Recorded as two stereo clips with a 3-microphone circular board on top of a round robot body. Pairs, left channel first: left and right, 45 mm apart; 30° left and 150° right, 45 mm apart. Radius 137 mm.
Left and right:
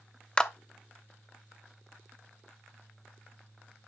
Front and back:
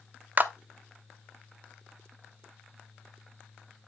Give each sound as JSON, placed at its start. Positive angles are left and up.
{"t": 0.4, "sound": "a clap", "azimuth_deg": 160, "distance_m": 0.9}